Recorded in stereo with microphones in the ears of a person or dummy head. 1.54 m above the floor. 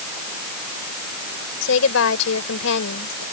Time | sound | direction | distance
1.6 | a woman speaking | 90° left | ?